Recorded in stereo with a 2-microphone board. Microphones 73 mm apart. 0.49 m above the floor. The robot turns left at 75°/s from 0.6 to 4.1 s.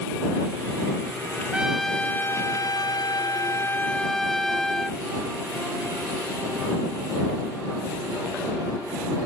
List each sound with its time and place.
1.5 s a trumpet: 160° right; by 5.0 s 5° left